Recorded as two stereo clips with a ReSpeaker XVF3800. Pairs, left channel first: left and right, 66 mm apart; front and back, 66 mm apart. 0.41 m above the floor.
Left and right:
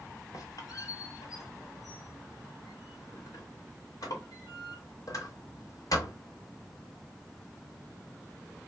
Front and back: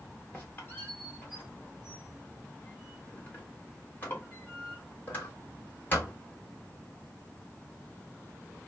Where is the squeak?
60° left, 1.3 m.